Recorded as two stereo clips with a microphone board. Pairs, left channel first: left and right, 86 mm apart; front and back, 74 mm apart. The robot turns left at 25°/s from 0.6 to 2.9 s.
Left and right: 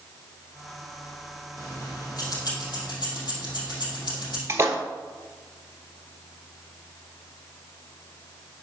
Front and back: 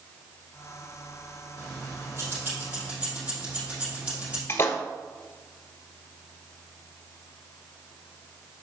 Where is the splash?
45° right, 1.0 m.